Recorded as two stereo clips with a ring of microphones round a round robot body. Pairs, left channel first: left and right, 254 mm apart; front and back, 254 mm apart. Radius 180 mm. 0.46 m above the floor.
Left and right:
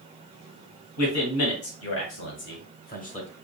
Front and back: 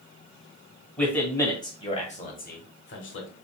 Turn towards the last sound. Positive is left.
turn(degrees=30)